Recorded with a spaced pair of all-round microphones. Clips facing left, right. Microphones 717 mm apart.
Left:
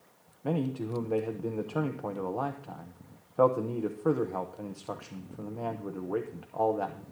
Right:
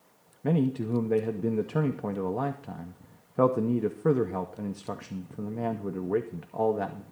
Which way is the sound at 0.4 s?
50° right (ahead or behind).